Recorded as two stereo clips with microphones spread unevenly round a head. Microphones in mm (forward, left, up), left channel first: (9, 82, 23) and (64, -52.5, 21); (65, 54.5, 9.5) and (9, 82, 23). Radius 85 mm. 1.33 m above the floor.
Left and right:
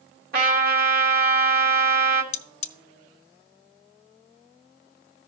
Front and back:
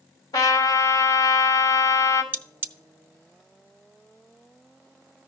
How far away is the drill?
No drill in this recording.